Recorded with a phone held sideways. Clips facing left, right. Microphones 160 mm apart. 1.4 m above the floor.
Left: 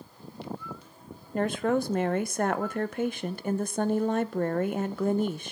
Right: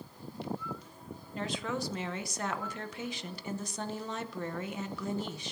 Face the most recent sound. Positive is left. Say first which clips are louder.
# left 10 dB
turn(degrees=55)  # may be behind; listen again after turning